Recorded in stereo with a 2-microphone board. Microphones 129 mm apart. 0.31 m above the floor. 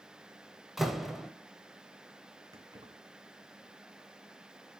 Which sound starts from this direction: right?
Keys jangling, at 2.5 s.